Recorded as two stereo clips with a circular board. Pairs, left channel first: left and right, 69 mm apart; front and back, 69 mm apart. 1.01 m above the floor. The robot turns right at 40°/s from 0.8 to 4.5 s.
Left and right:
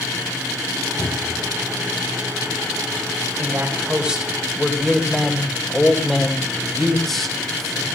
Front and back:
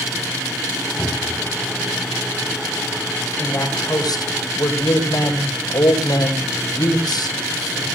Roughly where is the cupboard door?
Ahead left.